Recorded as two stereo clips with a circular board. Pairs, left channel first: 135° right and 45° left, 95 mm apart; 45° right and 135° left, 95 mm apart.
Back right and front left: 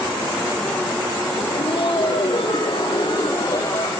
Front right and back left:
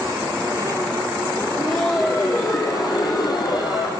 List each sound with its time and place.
1.4 s laughter: 115° right, 3.5 m; by 3.9 s 80° right, 4 m